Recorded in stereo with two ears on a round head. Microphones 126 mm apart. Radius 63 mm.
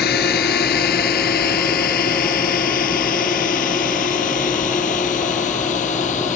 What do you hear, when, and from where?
0.0 s a drone: 80° left; by 6.4 s 60° left (ahead or behind)